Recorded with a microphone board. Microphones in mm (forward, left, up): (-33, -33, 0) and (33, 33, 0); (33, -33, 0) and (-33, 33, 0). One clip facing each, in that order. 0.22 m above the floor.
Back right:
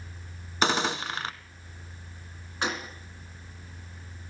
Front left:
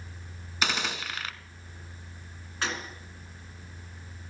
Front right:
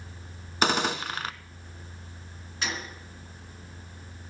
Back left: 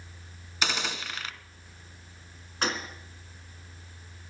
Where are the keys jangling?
No keys jangling in this recording.